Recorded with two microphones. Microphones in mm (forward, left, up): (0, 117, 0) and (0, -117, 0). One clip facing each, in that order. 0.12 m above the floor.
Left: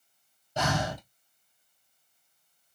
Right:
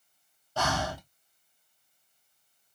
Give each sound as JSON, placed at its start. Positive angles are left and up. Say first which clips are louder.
{"t": 0.6, "sound": "breathing", "louder": "left 2 dB", "side_deg": 20, "distance_m": 0.6}